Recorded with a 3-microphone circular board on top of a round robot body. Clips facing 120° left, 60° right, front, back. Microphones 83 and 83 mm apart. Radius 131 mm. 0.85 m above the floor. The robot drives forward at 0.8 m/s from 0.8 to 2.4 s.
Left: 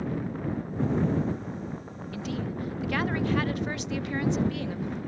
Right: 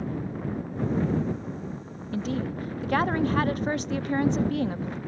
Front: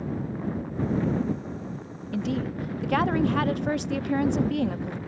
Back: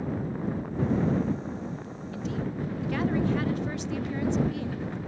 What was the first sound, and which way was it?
A woman speaking, 10° right.